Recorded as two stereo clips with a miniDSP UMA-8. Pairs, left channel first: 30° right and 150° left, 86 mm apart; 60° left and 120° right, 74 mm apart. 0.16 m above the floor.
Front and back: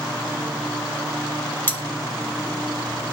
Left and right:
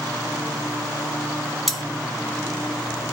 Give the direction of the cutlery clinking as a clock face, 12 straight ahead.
1 o'clock.